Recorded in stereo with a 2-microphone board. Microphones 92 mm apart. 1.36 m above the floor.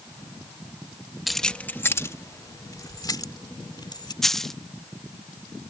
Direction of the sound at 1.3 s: Centre (ahead or behind).